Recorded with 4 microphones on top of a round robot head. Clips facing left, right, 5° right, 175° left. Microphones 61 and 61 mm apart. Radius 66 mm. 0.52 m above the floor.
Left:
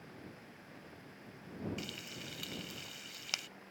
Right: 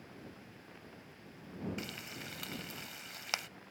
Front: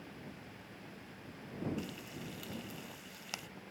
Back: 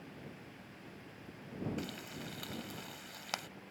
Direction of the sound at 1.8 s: 145° right.